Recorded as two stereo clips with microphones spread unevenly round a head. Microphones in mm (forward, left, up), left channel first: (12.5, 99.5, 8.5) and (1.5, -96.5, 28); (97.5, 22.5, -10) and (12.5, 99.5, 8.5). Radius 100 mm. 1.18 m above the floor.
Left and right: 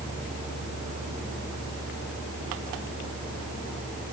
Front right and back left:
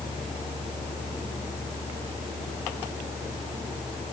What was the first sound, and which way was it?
A fan, 45° right.